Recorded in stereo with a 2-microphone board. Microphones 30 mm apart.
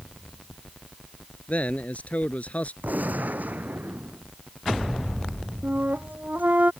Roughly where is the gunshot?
Right.